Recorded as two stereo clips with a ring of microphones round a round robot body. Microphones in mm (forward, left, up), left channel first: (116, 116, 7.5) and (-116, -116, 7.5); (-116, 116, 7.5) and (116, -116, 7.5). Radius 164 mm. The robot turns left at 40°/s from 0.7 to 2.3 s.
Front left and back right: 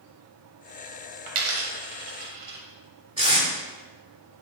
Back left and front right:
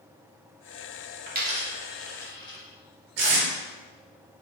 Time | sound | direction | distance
1.3 | a dropped coin | 105° right | 0.7 m
3.2 | tape being pulled | 65° right | 1.5 m